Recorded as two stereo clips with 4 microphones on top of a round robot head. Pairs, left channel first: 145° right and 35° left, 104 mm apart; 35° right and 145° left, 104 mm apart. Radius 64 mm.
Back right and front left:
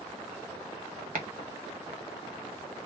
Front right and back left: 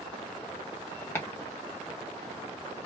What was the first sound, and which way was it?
Chopping, 30° left.